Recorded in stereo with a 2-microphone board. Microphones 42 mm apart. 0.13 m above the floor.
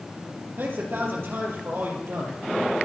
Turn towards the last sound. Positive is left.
turn(degrees=-55)  # may be behind; listen again after turning